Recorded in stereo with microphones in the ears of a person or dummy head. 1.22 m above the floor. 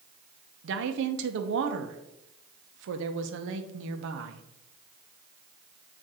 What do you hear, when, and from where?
0.6 s a woman speaking: 75° right (ahead or behind), 0.7 m